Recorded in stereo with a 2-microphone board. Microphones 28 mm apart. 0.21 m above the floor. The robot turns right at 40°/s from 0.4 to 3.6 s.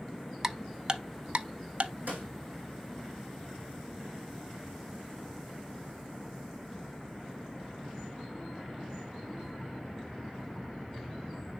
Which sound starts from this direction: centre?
Ticking, at 0.4 s.